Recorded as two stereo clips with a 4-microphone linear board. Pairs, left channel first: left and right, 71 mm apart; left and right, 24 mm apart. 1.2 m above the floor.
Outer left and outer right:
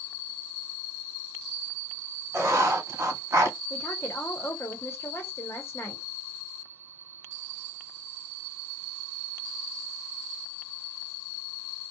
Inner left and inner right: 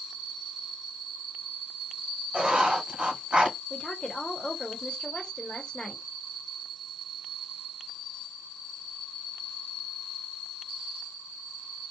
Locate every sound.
2.3 s writing: 35° right (ahead or behind), 1.2 m
3.7 s a woman speaking: 35° left (ahead or behind), 0.8 m